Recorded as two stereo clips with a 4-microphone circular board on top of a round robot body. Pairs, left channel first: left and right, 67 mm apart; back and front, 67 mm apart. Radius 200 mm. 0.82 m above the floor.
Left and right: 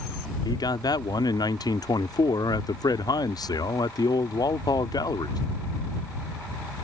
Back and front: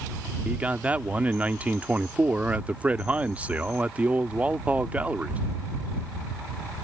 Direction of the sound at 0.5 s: 70° left.